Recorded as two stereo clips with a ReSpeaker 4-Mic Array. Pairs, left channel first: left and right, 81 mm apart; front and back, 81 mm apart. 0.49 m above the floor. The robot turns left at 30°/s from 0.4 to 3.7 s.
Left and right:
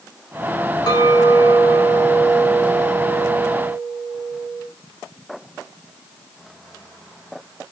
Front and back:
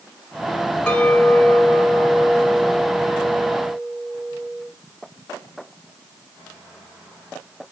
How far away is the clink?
About 2.5 m.